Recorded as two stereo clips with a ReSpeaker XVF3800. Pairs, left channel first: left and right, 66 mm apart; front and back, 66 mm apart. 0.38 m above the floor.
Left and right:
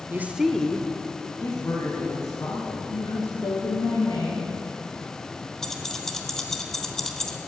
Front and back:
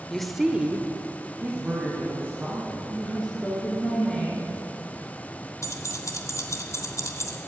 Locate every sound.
0.1 s a woman speaking: 80° right, 1.0 m; by 2.8 s 120° left, 4 m
2.9 s a woman speaking: 80° left, 5 m
5.6 s keys jangling: 10° left, 1.3 m